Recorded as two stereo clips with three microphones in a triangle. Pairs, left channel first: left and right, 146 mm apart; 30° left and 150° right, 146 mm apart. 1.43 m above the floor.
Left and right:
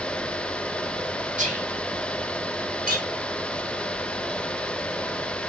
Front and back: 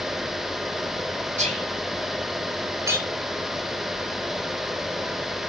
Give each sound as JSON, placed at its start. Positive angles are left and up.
{"t": 1.4, "sound": "whispering", "azimuth_deg": -115, "distance_m": 6.0}
{"t": 2.9, "sound": "a clink", "azimuth_deg": -80, "distance_m": 3.0}